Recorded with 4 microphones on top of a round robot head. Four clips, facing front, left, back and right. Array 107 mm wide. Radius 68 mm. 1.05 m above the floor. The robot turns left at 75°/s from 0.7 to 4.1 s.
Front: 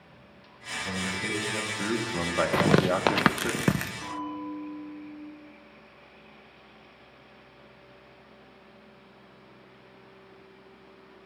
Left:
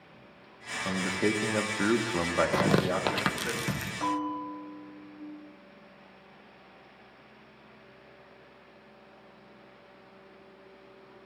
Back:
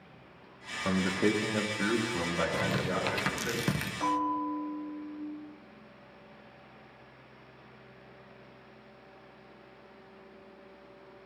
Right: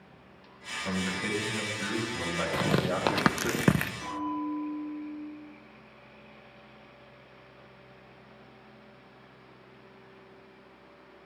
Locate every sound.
0.8 s a man speaking: 165° left, 1.7 m; by 3.5 s 40° right, 1.7 m
2.5 s tearing paper: 30° left, 0.6 m; by 3.9 s 75° right, 0.6 m
4.0 s a bell: 145° left, 8 m; by 5.2 s 140° left, 8 m